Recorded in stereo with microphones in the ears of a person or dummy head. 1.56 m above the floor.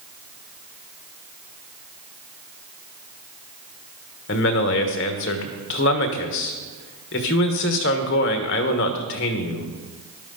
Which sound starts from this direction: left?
A man speaking, at 4.3 s.